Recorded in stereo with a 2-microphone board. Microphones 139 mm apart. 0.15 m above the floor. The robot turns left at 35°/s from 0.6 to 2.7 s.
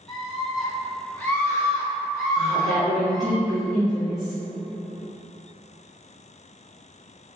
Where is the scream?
5° left (ahead or behind), 1.2 m; by 3.4 s 30° left (ahead or behind), 1.2 m.